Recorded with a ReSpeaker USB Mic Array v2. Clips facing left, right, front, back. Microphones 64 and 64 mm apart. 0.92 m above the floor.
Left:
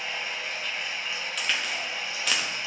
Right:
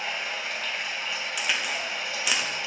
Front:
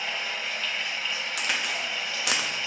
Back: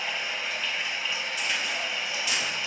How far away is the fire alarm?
I don't hear a fire alarm.